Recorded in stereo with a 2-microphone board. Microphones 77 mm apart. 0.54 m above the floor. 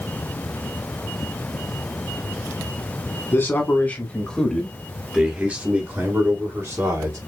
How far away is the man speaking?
About 1.6 m.